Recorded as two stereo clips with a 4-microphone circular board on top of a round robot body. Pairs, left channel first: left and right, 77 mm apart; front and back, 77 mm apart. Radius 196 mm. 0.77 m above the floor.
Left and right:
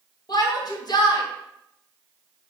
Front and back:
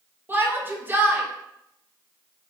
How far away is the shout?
About 2 m.